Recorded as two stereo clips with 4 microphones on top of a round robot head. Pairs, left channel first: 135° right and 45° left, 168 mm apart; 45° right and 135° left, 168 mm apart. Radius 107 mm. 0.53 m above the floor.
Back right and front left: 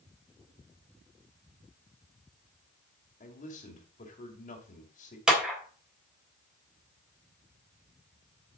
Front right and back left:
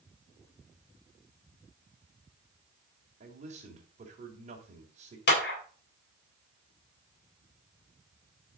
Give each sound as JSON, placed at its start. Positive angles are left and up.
{"t": 3.2, "sound": "a man speaking", "azimuth_deg": 180, "distance_m": 2.0}
{"t": 5.3, "sound": "a clap", "azimuth_deg": -40, "distance_m": 3.0}